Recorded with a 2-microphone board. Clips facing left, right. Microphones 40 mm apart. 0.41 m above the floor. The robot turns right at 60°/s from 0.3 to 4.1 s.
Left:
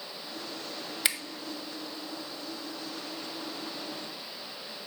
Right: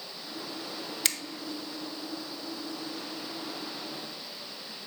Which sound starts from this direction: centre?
A finger snap, at 1.1 s.